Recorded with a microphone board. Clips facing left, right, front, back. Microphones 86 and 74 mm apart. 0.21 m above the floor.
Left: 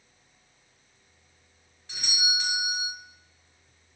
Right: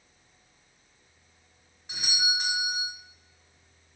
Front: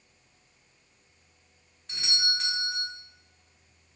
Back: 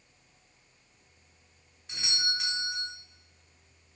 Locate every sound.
1.9 s a doorbell: 110° right, 1.5 m